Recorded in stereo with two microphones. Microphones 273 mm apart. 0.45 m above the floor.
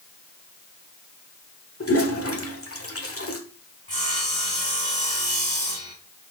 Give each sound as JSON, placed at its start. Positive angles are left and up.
{"t": 1.8, "sound": "a toilet flushing", "side_deg": 55, "distance_m": 1.3}
{"t": 3.9, "sound": "sawing", "side_deg": 25, "distance_m": 3.0}